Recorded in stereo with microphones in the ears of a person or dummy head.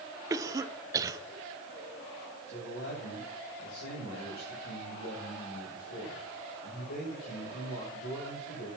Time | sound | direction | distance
0.3 | a cough | 20° right (ahead or behind) | 1.0 m
2.5 | a man speaking | 60° left (ahead or behind) | 7.5 m